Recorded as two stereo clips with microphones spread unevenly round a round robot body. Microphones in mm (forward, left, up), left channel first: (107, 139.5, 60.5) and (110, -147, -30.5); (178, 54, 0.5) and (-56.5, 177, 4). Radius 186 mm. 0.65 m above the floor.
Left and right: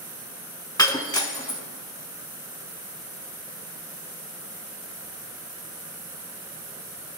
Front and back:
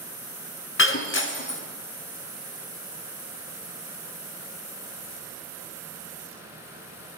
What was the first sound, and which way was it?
Breaking glass, 15° left.